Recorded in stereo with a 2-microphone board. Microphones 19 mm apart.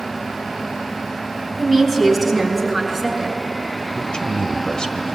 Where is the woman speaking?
5° left (ahead or behind), 3.5 m; by 3.4 s centre (ahead or behind), 6 m.